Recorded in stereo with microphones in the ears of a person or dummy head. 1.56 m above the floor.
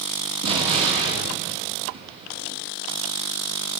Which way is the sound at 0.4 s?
30° right (ahead or behind).